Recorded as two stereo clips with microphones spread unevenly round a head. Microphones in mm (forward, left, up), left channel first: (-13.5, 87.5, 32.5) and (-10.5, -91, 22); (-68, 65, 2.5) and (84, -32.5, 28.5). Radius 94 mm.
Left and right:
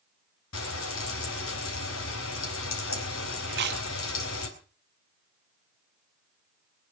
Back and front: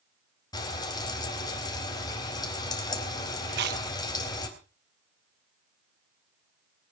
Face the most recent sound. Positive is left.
turn(degrees=-65)